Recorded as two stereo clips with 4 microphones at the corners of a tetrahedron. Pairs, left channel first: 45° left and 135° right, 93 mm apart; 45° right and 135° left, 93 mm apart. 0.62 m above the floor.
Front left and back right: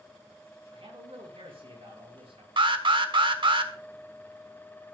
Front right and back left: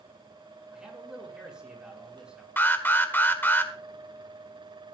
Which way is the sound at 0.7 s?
145° right.